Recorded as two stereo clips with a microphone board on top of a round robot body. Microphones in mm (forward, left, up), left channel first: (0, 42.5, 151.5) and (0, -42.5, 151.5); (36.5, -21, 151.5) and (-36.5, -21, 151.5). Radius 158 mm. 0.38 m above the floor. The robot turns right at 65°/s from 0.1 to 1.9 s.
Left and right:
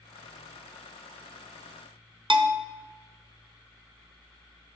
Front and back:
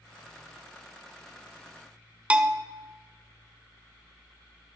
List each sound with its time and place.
2.3 s a bell: 105° right, 1.0 m